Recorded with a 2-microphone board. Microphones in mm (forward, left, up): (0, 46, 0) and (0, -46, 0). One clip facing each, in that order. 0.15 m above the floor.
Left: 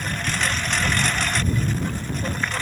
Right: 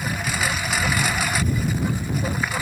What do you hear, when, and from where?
0.0 s a lawn mower: 5° right (ahead or behind)